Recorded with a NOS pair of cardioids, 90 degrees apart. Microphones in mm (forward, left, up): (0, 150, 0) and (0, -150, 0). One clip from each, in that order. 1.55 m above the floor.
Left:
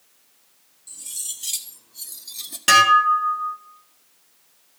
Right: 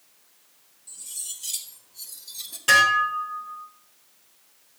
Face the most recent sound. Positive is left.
turn(degrees=60)